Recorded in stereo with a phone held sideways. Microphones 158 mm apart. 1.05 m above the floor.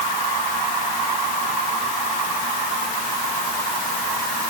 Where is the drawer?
I don't hear a drawer.